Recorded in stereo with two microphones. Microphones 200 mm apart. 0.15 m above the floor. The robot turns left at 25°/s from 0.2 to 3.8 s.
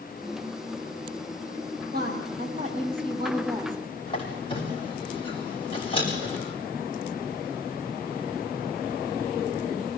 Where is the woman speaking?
125° right, 4.5 m; by 3.8 s 170° right, 4.5 m.